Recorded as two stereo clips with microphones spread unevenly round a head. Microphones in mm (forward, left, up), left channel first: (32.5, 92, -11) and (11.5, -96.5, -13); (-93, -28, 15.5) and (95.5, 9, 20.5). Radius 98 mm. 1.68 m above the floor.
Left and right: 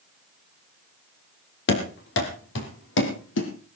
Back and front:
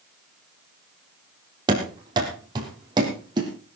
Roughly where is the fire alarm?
No fire alarm in this recording.